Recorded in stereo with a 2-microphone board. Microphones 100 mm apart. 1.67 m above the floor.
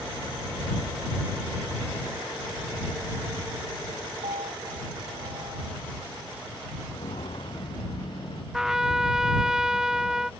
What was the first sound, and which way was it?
A piano, 85° right.